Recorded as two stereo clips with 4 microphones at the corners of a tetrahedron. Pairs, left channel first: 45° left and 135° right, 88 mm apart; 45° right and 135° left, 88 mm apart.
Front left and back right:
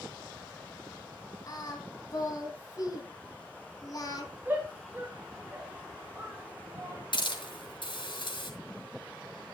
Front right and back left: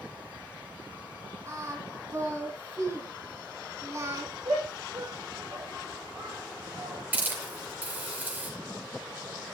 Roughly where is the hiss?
Ahead left.